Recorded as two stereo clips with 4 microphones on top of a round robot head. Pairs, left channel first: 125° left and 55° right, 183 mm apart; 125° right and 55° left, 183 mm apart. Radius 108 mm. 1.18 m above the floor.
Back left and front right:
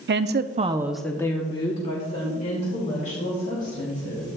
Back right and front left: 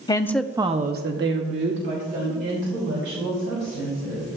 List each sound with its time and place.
0.1 s a woman speaking: 55° right, 0.9 m; by 4.3 s 80° left, 4.5 m